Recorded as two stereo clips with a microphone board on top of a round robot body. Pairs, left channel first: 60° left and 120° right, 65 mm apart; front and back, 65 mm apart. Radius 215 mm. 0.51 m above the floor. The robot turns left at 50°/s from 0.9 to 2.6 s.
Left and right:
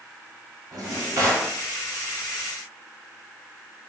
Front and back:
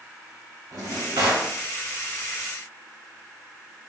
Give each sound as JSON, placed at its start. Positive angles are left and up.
{"t": 0.7, "sound": "a drawer", "azimuth_deg": -145, "distance_m": 1.0}